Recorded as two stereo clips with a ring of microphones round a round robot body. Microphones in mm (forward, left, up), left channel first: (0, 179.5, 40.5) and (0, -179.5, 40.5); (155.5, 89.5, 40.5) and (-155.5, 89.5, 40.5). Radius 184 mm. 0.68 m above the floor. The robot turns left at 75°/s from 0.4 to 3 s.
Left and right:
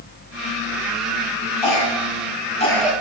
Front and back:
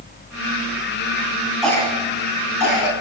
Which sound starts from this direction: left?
A cough, at 1.6 s.